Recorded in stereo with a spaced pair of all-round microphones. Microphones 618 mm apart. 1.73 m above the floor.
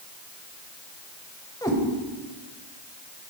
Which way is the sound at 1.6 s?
5° left (ahead or behind).